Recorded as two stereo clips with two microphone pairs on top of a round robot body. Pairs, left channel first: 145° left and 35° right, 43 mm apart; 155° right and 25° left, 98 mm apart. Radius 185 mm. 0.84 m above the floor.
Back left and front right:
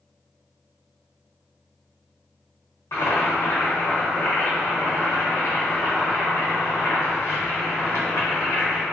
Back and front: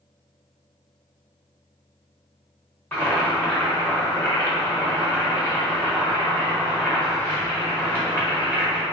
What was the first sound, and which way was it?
Boiling, 135° left.